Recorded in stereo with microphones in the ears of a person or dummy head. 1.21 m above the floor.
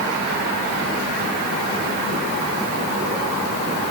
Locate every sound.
Only background noise.